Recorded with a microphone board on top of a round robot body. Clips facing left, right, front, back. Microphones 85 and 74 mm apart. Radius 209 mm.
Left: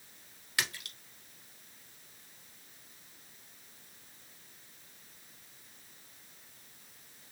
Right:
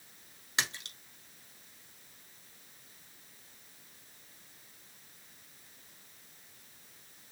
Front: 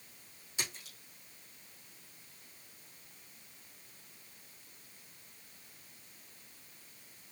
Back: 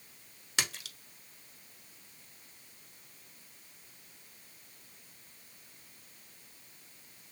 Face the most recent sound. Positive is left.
turn(degrees=-155)